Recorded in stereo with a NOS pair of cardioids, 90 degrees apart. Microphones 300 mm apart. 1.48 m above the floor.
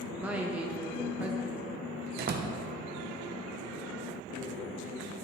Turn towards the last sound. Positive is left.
turn(degrees=-35)